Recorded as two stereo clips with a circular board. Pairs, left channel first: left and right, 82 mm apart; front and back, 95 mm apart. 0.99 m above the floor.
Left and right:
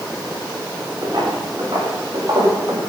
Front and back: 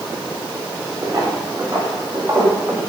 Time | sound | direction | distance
1.0 | footsteps | 130° right | 9 m